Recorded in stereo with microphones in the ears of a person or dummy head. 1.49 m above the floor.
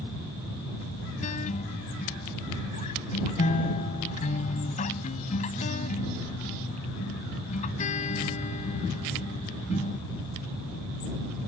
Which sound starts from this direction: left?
A guitar, at 1.2 s.